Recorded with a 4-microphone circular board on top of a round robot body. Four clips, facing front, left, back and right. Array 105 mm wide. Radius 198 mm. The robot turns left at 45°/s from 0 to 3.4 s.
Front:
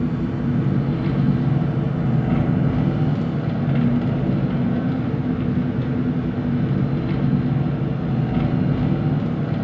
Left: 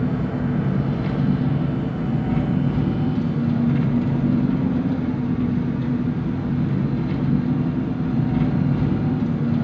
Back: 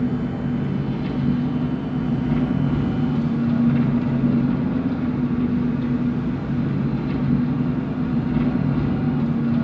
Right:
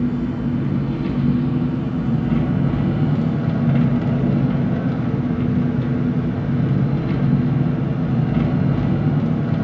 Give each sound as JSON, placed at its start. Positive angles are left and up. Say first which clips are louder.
{"t": 0.0, "sound": "an engine running", "louder": "right 2 dB, even", "azimuth_deg": 100, "distance_m": 2.5}